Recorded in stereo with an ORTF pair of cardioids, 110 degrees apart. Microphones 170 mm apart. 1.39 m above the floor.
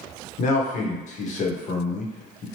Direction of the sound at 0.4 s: 50° left.